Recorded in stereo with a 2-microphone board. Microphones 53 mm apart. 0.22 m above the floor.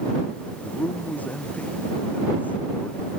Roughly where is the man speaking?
Left.